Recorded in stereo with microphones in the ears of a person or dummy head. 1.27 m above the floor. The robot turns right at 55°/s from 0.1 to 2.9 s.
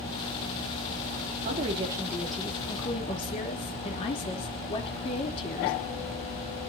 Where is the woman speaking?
45° right, 3 m; by 5.7 s 35° left, 3 m.